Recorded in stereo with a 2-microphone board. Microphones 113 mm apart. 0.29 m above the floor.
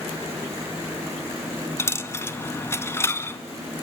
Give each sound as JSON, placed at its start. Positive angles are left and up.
{"t": 1.8, "sound": "a dropped coin", "side_deg": 25, "distance_m": 0.9}